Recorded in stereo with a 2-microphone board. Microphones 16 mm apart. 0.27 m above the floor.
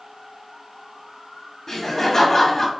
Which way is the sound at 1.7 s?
30° left (ahead or behind).